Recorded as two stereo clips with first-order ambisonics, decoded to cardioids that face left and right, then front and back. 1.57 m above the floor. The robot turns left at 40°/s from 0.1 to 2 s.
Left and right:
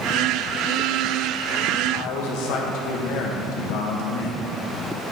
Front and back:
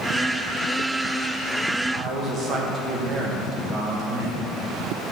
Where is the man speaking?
120° left, 1.4 m; by 4.5 s 115° left, 1.4 m.